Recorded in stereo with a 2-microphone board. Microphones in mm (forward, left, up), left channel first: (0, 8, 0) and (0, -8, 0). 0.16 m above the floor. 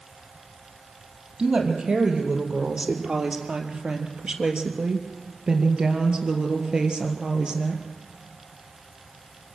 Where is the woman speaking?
55° right (ahead or behind), 4 m; by 7.8 s 50° right (ahead or behind), 3 m.